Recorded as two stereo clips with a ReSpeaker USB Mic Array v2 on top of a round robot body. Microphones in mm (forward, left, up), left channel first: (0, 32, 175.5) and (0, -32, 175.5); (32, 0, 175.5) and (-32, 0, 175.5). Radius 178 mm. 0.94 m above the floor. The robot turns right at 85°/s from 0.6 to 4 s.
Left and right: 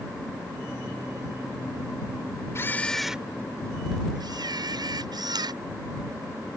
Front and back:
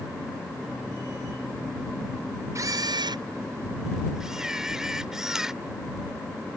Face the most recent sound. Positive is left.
turn(degrees=-100)